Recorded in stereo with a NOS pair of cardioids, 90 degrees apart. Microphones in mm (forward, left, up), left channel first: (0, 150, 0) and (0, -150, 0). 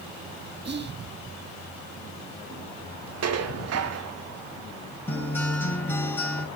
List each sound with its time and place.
0.7 s whispering: 35° right, 1.7 m
3.2 s dishes clattering: 55° right, 1.5 m
5.1 s a guitar: 5° left, 5.5 m